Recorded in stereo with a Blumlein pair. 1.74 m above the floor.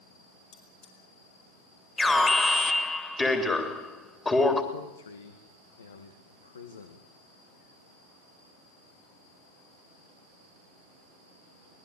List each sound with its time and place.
0.5 s cutlery clinking: 50° left, 6.5 m
2.0 s an alarm: 10° left, 3.5 m
4.7 s a man speaking: 70° left, 2.0 m